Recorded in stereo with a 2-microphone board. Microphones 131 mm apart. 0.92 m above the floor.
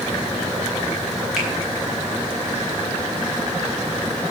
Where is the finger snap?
5° right (ahead or behind), 5.5 m.